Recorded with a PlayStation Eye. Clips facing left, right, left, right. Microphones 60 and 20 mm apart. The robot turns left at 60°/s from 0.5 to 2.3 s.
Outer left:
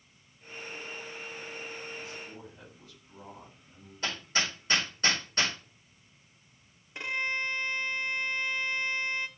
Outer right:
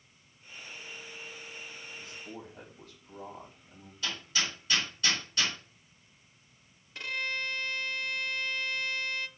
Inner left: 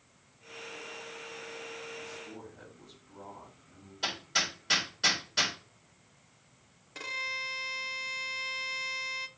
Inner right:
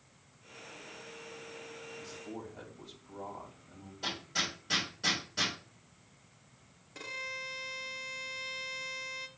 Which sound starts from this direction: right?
A man speaking, at 2.0 s.